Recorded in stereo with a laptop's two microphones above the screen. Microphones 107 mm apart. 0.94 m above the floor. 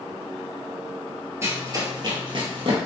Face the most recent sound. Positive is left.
turn(degrees=-55)  # may be behind; listen again after turning